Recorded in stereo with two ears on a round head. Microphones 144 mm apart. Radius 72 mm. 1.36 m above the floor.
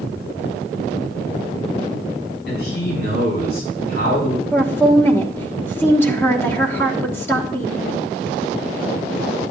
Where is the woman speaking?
15° left (ahead or behind), 1.3 m.